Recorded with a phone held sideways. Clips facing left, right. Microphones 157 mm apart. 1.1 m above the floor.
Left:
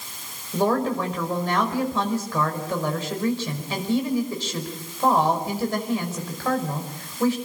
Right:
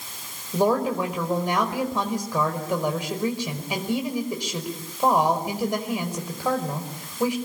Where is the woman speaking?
15° right (ahead or behind), 5 m.